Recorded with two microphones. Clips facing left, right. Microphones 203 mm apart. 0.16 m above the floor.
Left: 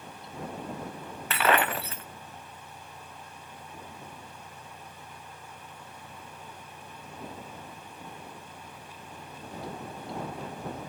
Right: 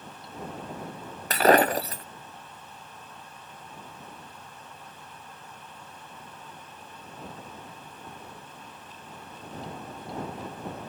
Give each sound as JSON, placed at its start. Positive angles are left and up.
{"t": 1.3, "sound": "breaking glass", "side_deg": -40}